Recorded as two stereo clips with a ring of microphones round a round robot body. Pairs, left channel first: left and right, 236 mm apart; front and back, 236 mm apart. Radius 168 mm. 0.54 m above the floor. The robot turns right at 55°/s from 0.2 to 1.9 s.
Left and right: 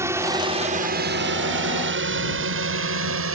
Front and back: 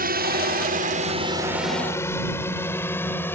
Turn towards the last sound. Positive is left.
turn(degrees=-85)